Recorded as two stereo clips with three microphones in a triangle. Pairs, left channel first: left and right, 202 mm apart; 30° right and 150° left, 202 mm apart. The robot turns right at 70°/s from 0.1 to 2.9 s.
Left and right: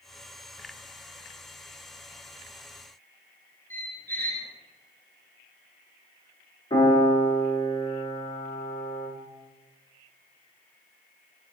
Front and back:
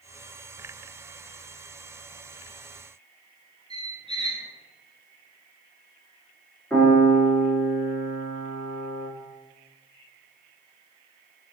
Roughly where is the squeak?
Ahead.